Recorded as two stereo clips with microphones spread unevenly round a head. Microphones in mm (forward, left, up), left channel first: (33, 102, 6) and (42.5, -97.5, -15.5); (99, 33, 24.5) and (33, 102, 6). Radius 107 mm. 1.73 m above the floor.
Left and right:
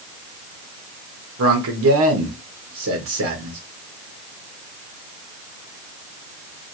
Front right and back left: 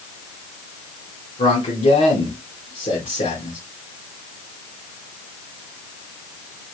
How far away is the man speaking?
About 1.7 m.